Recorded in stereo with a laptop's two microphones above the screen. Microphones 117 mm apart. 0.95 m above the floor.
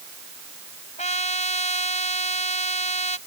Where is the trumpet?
80° left.